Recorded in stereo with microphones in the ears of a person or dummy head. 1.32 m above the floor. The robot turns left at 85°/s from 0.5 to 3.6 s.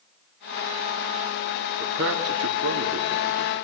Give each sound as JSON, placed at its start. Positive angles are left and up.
{"t": 1.8, "sound": "a man speaking", "side_deg": -45, "distance_m": 2.5}